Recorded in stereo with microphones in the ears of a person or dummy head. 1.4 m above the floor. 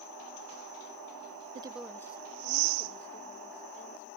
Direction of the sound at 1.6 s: 35° right (ahead or behind).